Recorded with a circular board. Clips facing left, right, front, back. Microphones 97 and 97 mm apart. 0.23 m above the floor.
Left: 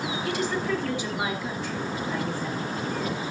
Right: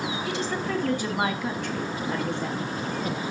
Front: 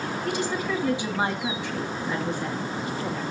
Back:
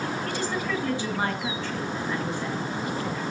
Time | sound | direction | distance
0.2 | a woman speaking | 50° right | 1.3 m